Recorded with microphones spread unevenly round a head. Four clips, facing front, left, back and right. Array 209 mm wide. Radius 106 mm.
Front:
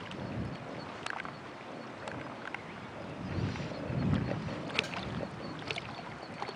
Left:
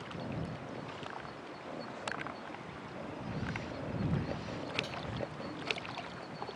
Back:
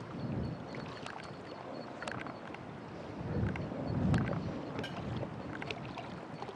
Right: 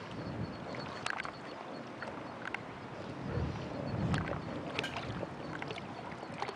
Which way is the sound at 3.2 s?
125° right.